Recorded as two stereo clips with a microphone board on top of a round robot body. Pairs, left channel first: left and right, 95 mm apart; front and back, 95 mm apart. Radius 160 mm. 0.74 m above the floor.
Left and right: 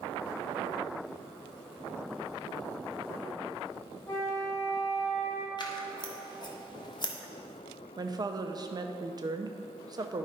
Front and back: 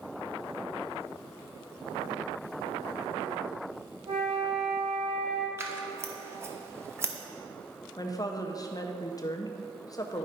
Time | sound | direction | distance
4.1 | a flute | 155° left | 1.9 m
5.6 | scissors | 120° left | 1.4 m
8.0 | a woman speaking | 45° right | 0.7 m